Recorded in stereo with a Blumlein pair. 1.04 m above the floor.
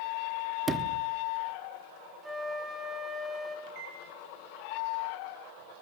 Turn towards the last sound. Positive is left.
turn(degrees=-40)